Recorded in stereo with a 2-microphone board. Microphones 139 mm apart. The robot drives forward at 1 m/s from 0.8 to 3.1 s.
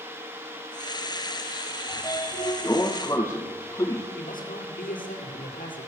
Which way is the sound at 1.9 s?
25° left (ahead or behind).